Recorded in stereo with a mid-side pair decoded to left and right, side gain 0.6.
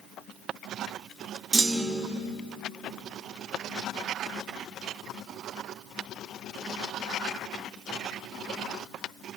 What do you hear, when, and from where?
1.5 s a clunk: 25° right, 0.7 m